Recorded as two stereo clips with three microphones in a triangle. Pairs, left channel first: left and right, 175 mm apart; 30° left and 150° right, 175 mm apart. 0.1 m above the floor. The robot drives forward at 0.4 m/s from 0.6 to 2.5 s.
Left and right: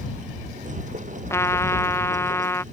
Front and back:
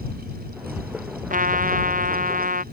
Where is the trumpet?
165° left.